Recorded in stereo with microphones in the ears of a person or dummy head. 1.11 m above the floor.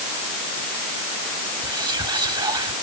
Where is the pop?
No pop in this recording.